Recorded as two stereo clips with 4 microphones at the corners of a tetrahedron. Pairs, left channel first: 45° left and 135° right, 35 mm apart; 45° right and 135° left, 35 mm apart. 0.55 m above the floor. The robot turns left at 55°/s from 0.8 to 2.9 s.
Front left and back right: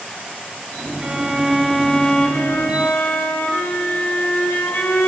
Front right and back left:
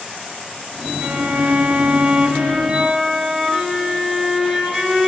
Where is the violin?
145° left, 3 m; by 5.1 s 45° left, 3 m.